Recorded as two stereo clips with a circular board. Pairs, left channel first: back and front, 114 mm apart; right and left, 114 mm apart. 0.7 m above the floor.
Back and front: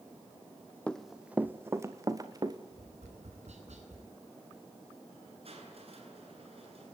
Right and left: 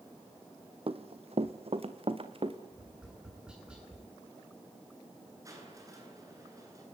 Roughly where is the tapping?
Ahead.